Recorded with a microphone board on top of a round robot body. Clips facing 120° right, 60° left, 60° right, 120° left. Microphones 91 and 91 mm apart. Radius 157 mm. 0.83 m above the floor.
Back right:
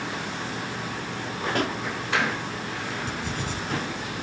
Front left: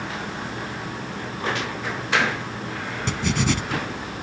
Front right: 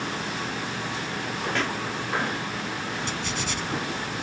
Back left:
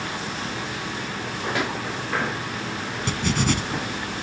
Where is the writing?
80° left.